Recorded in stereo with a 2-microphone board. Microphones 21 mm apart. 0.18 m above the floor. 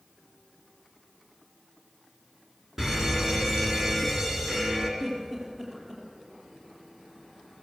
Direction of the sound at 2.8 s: 20° right (ahead or behind).